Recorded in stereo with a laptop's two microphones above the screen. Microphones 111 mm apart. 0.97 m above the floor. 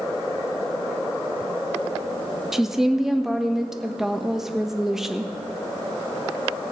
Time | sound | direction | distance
2.5 | a woman speaking | 5° right (ahead or behind) | 1.2 m